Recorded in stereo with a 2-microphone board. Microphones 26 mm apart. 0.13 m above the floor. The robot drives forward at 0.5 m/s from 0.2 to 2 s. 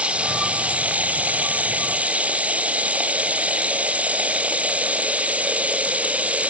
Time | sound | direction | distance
0.0 | running water | 55° right (ahead or behind) | 1.0 m